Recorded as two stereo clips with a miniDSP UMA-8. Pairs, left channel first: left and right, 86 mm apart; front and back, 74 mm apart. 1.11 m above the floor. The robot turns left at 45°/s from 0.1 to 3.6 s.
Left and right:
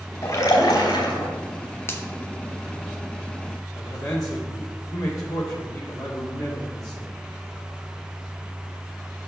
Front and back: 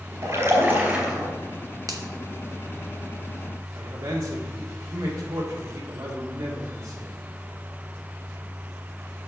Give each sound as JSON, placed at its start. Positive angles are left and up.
{"t": 0.2, "sound": "a splash", "azimuth_deg": 145, "distance_m": 3.0}
{"t": 1.9, "sound": "a finger snap", "azimuth_deg": 150, "distance_m": 1.0}
{"t": 3.8, "sound": "a man speaking", "azimuth_deg": 135, "distance_m": 2.0}